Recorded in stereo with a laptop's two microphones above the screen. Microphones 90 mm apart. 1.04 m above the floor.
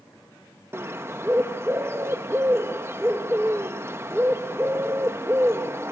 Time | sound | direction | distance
0.7 | a bird | 30° right (ahead or behind) | 0.9 m